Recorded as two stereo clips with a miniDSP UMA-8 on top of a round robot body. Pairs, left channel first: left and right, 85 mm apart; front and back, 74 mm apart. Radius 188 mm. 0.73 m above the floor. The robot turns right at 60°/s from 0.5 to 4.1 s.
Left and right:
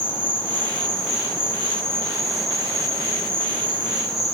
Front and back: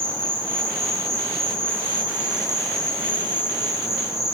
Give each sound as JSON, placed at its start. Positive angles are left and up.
{"t": 0.0, "sound": "an insect", "azimuth_deg": 140, "distance_m": 1.5}